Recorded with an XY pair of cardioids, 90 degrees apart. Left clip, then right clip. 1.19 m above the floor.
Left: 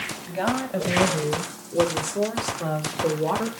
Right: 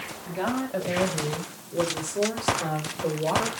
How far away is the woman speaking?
About 7 m.